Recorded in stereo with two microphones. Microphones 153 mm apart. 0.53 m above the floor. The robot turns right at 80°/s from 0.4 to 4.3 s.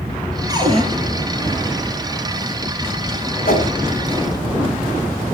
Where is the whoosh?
75° left (ahead or behind), 4 m; by 3.7 s 70° left (ahead or behind), 4 m.